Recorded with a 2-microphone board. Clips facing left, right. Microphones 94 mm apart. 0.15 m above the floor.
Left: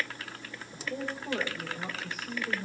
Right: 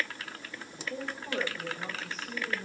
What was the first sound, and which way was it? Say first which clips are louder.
A woman speaking: left 2 dB; 10° left (ahead or behind).